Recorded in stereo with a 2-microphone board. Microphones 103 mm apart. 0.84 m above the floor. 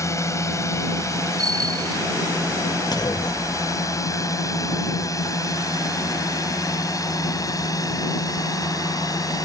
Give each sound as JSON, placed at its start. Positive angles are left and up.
{"t": 0.0, "sound": "a drone", "side_deg": 30}
{"t": 1.4, "sound": "a bicycle bell", "side_deg": -40}
{"t": 2.9, "sound": "a clunk", "side_deg": 40}